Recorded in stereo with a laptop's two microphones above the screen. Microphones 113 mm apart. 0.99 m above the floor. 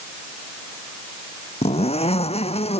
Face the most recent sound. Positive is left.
turn(degrees=65)  # may be behind; listen again after turning